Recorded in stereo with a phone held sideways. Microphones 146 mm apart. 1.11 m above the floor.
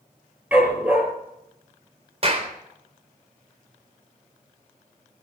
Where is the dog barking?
10° right (ahead or behind), 5 m.